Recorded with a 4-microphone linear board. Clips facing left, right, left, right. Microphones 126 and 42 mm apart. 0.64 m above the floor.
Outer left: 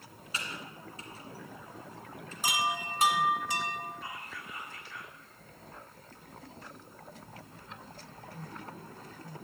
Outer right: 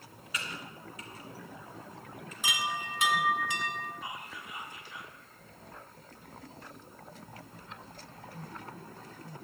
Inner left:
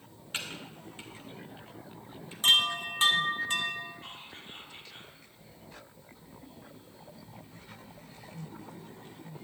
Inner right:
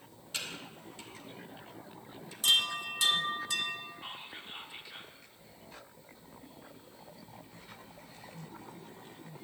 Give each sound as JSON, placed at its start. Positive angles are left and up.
{"t": 0.3, "sound": "typing on a keyboard", "side_deg": 30, "distance_m": 1.8}
{"t": 2.4, "sound": "a chime", "side_deg": 40, "distance_m": 1.1}
{"t": 4.0, "sound": "whispering", "side_deg": -15, "distance_m": 1.2}